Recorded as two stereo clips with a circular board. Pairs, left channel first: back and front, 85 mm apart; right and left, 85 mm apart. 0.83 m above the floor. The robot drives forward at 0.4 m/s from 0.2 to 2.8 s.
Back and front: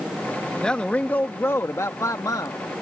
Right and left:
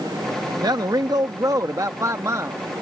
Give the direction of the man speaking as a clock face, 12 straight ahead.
9 o'clock.